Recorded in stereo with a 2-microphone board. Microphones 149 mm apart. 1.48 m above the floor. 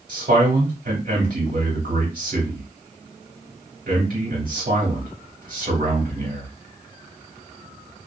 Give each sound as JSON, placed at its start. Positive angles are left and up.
{"t": 0.1, "sound": "a man speaking", "side_deg": -75, "distance_m": 1.6}